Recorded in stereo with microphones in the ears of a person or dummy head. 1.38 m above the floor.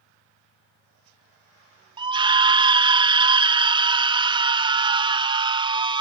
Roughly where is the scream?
Centre.